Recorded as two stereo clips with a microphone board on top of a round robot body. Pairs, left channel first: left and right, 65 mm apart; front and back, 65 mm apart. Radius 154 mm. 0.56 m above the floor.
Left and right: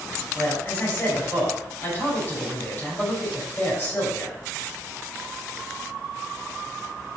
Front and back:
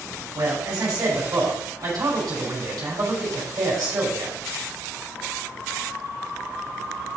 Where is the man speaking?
150° left, 6 m.